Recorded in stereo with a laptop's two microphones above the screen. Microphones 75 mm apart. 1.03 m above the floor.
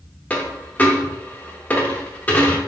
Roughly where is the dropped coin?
Left.